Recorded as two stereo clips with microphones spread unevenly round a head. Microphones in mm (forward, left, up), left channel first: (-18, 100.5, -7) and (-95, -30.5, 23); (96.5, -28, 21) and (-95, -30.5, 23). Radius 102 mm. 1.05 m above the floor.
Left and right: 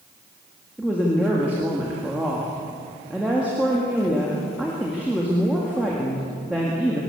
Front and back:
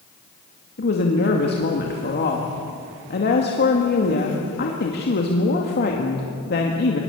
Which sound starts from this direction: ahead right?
A woman speaking, at 0.8 s.